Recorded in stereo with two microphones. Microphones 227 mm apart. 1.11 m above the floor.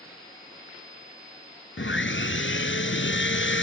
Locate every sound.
1.8 s sawing: 60° left (ahead or behind)